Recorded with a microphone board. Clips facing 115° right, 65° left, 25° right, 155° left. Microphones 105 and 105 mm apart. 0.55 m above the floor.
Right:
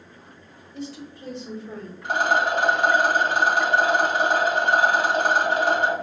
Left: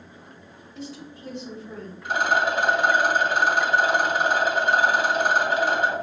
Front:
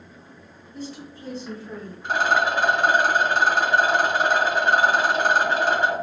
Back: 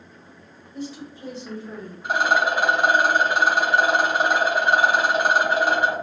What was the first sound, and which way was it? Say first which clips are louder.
A woman speaking: right 3 dB, back 2 dB; 130° right.